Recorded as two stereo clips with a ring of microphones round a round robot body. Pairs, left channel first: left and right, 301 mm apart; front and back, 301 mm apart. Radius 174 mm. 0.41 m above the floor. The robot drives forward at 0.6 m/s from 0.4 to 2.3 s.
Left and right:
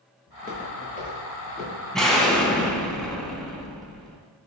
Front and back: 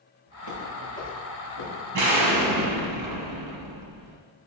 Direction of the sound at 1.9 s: Straight behind.